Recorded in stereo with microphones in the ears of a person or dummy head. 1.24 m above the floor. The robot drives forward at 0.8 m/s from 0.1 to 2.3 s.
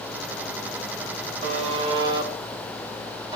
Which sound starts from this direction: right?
A buzzer, at 1.4 s.